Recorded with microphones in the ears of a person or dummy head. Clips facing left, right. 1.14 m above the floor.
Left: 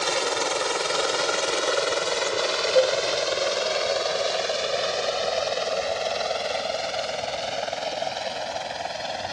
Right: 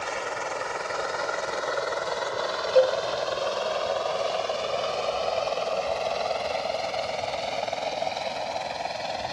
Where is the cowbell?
10° right (ahead or behind).